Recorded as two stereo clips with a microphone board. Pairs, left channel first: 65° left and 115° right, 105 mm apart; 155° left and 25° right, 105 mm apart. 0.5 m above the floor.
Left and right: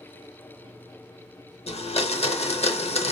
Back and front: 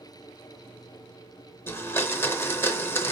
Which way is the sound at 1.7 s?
90° left.